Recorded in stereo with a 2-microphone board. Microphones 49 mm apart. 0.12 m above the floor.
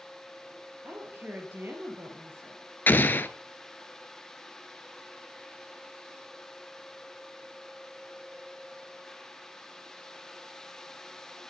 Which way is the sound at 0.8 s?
50° right (ahead or behind).